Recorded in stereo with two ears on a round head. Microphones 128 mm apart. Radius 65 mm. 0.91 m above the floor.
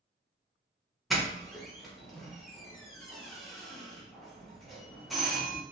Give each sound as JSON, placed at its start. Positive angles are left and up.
{"t": 1.1, "sound": "a doorbell", "side_deg": 0, "distance_m": 0.7}